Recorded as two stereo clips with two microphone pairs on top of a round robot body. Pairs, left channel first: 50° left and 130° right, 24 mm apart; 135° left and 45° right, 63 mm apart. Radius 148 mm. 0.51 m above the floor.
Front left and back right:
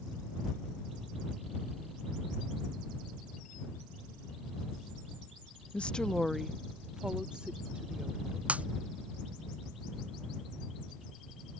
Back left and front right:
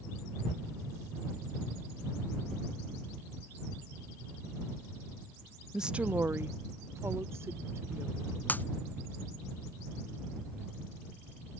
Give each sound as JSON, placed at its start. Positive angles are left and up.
{"t": 5.7, "sound": "a woman speaking", "azimuth_deg": 30}
{"t": 8.5, "sound": "breaking glass", "azimuth_deg": -165}